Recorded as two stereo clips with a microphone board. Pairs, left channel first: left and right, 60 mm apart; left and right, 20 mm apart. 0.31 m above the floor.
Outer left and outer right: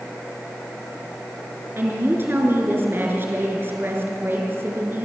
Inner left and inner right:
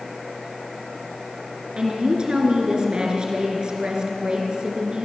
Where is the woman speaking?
35° right (ahead or behind), 4 m.